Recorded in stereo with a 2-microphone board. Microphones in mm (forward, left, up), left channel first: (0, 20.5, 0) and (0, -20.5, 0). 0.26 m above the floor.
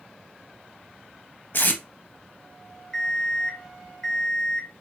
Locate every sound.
1.5 s tape being pulled: 50° left (ahead or behind), 0.6 m
2.9 s an alarm clock: 15° left (ahead or behind), 1.5 m